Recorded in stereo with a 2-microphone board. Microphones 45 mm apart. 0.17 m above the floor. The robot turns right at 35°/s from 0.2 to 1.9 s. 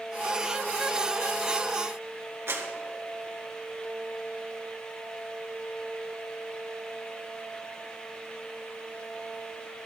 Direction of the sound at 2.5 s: 60° right (ahead or behind).